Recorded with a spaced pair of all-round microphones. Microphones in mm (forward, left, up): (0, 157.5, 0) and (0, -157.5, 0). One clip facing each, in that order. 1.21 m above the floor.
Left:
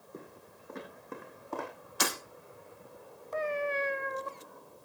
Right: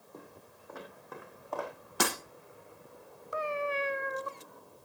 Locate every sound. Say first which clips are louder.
0.1 s footsteps: left 3 dB; 25° left (ahead or behind), 3 m; by 1.7 s 35° left (ahead or behind), 4 m
2.0 s breaking glass: right 3 dB; 70° right (ahead or behind), 5.5 m
3.3 s a cat meowing: left 1 dB; 15° right (ahead or behind), 0.8 m